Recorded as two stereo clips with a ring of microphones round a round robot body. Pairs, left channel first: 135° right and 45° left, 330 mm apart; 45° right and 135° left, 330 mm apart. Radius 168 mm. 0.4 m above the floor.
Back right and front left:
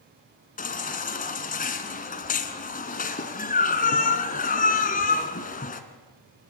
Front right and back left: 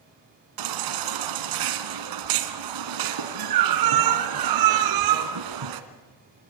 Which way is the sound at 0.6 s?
160° left.